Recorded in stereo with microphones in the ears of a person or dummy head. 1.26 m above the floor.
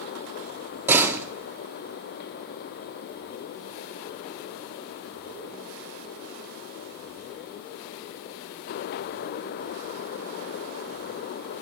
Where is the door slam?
10° right (ahead or behind), 1.3 m.